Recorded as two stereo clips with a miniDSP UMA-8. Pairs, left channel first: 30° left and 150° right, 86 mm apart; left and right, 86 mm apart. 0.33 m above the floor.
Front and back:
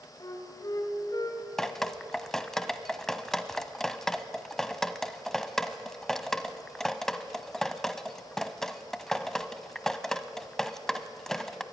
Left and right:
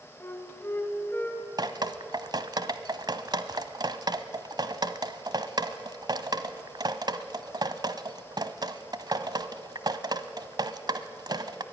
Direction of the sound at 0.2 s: 40° left.